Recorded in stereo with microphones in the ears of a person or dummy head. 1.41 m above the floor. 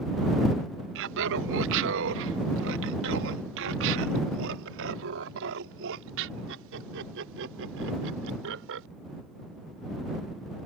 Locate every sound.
0.9 s laughter: 70° right (ahead or behind); by 8.9 s 75° right (ahead or behind)